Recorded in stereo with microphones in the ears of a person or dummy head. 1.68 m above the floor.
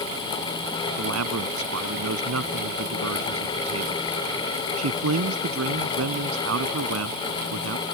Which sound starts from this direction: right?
A man speaking, at 1.0 s.